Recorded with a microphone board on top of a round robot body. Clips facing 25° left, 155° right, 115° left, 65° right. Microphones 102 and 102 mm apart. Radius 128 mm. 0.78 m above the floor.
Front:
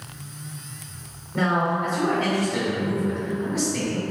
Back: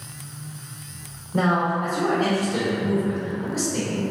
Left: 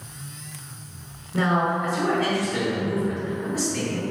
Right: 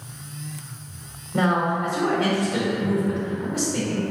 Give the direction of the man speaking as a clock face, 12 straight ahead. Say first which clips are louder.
Back 1 dB, right 1 dB; 4 o'clock.